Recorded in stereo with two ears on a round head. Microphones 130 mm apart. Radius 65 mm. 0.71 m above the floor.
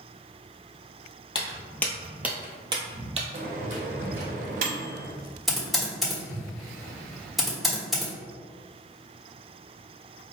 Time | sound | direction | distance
1.4 | footsteps | 30° left (ahead or behind) | 1.0 m
3.3 | a microwave | 55° right (ahead or behind) | 0.7 m
5.5 | typing on a keyboard | centre (ahead or behind) | 1.2 m